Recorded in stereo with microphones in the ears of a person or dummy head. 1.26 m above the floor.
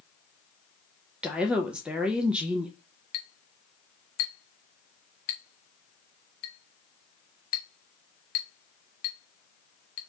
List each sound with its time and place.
1.2 s a woman speaking: 5° right (ahead or behind), 0.5 m
3.1 s a clink: 50° left (ahead or behind), 0.6 m